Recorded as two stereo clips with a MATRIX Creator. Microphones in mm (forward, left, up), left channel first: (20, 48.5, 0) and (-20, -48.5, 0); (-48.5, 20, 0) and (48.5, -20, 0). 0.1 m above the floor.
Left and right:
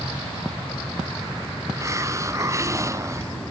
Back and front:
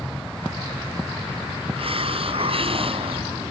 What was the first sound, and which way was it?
A hiss, 50° right.